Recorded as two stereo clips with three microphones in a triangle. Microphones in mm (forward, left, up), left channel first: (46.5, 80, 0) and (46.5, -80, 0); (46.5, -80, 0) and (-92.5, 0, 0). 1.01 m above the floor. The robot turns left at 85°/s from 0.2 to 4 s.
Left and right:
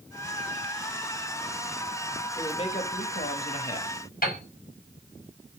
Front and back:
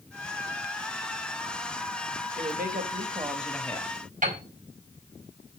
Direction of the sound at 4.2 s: 115° left.